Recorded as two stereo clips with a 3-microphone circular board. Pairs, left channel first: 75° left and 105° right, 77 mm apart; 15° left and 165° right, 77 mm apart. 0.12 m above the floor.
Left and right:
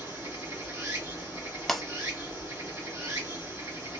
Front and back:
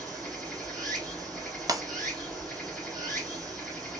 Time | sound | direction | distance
0.0 | running water | 70° right | 2 m
1.7 | breaking glass | 160° left | 0.5 m